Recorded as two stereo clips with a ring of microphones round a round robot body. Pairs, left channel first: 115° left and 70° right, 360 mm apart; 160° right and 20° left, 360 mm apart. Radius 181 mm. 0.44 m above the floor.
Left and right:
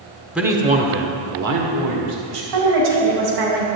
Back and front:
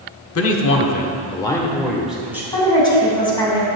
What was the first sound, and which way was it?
A man speaking, 155° right.